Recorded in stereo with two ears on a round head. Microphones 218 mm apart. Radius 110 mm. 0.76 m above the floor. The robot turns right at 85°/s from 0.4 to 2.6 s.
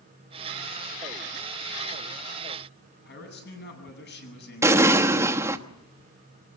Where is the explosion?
10° right (ahead or behind), 1.1 m.